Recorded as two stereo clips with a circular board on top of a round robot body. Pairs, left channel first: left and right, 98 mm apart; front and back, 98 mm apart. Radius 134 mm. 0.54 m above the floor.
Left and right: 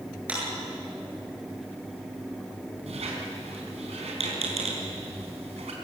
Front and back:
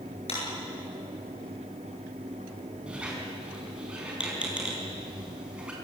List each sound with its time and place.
0.3 s a clap: 15° right, 9 m
2.9 s a squeak: 100° right, 4.5 m